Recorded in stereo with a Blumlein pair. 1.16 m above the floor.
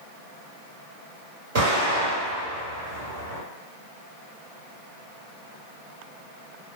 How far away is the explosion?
About 1.8 m.